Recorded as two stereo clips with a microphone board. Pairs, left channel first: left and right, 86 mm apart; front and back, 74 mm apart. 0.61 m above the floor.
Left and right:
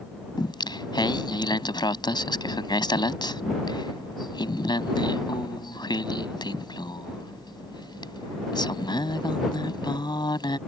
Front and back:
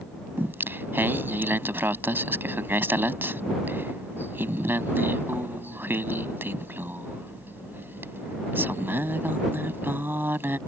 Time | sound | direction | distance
0.4 | singing | 120° left | ?